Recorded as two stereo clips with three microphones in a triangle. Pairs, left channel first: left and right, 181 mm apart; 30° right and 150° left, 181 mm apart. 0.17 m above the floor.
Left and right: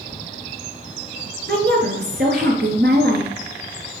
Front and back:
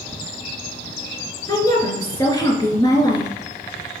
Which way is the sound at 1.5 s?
100° right.